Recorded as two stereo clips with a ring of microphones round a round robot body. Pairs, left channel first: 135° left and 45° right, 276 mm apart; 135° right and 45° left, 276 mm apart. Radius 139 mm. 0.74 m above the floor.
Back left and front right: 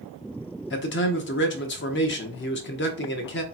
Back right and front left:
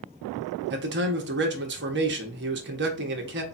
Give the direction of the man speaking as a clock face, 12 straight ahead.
9 o'clock.